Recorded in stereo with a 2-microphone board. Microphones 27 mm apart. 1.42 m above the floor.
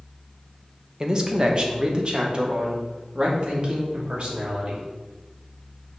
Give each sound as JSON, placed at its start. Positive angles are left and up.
{"t": 1.0, "sound": "a man speaking", "side_deg": -25, "distance_m": 1.5}